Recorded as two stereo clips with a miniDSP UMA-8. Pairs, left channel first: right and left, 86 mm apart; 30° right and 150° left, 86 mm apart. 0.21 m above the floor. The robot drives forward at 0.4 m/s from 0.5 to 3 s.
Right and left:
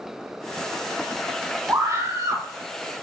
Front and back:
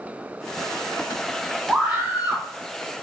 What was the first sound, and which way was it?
A scream, 90° left.